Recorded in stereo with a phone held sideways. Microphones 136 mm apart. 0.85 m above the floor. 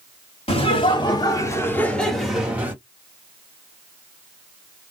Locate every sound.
0.5 s laughter: 45° left (ahead or behind), 1.8 m; by 2.8 s 15° right (ahead or behind), 1.5 m